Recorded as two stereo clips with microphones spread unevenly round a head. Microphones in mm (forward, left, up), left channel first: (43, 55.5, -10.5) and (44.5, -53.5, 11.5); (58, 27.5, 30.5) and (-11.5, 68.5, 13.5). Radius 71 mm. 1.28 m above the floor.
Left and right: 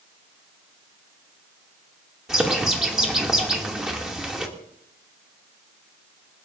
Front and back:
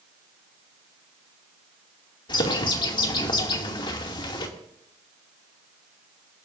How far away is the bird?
About 2.5 m.